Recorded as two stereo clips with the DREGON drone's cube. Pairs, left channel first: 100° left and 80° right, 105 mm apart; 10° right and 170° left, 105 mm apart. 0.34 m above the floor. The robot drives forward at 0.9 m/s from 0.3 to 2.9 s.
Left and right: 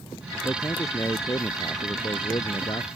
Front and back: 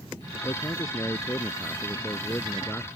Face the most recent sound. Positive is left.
turn(degrees=60)